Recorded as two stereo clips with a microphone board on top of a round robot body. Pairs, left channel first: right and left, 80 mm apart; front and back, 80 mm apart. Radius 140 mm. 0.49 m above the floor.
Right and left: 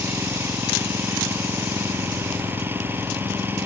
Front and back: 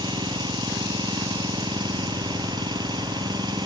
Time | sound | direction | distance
0.0 | an engine running | 155° left | ?